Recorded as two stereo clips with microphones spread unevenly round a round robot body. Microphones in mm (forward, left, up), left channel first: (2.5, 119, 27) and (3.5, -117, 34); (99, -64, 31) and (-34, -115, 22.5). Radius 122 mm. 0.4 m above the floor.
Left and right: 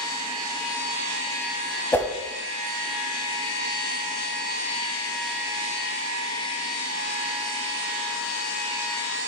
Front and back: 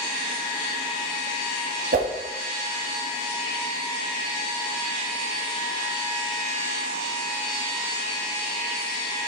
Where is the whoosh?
170° left, 1.5 m.